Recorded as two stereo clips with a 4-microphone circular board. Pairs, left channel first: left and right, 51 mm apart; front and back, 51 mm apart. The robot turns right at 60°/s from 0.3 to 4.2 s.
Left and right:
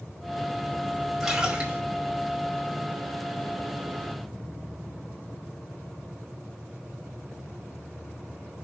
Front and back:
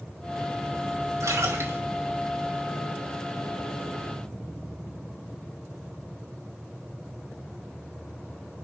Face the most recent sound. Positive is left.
turn(degrees=0)